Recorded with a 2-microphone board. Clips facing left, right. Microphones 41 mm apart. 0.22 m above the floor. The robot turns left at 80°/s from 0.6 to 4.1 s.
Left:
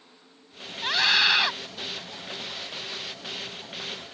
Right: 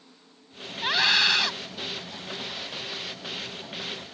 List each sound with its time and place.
0.8 s a scream: 160° right; by 1.5 s 145° left